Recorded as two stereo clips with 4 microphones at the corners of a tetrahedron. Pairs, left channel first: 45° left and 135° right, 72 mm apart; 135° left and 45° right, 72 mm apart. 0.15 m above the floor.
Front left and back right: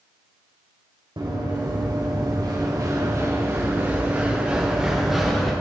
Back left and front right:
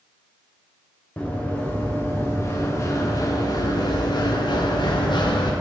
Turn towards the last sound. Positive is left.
turn(degrees=135)